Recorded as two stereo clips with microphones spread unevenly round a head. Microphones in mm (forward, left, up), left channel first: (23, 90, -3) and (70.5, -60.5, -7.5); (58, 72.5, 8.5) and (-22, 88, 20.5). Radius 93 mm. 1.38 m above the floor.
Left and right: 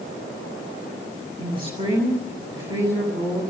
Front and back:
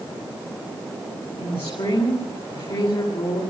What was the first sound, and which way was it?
A woman speaking, 10° right.